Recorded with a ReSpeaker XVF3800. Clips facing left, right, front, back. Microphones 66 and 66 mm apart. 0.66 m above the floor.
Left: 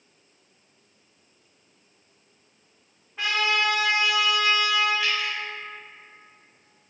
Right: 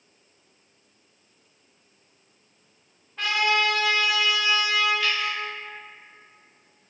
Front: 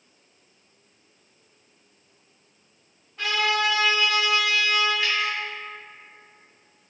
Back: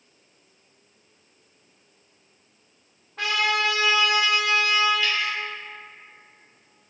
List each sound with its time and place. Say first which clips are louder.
3.2 s a trumpet: right 1 dB, even; 170° left, 0.8 m
5.0 s dripping: right 1 dB, even; 15° left, 1.4 m